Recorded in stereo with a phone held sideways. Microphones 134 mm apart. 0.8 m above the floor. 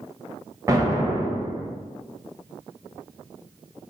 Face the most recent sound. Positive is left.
turn(degrees=-25)  # may be behind; listen again after turning